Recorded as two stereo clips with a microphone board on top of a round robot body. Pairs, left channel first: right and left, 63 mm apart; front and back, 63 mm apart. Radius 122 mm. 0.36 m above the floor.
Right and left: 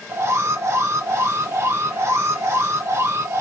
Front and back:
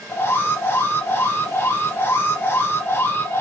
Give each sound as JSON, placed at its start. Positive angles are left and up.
{"t": 0.1, "sound": "an alarm", "azimuth_deg": 50, "distance_m": 1.1}